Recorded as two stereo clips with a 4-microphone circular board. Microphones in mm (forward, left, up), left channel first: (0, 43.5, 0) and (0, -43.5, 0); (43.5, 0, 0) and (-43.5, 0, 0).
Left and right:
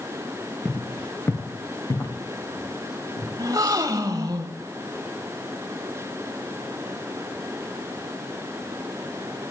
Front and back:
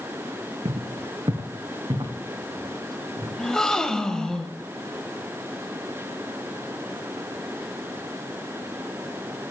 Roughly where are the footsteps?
Behind.